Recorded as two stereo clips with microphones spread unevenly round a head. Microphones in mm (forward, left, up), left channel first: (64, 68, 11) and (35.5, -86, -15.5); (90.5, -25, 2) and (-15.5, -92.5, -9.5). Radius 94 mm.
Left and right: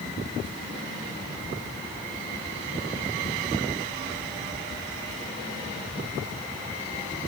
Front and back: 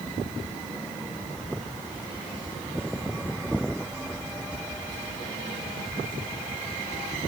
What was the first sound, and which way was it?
Only background noise.